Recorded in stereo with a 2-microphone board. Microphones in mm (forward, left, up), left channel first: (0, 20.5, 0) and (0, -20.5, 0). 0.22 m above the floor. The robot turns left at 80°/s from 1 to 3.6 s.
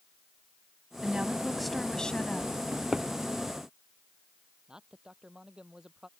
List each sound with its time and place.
1.0 s a woman speaking: 130° right; by 2.5 s 110° left
2.7 s a drawer: 35° right (ahead or behind); by 3.1 s 5° right (ahead or behind)
4.7 s a man speaking: 20° right (ahead or behind)